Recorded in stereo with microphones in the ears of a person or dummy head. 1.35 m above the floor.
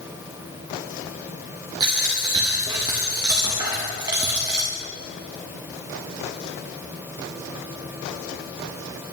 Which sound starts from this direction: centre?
A dropped coin, at 1.8 s.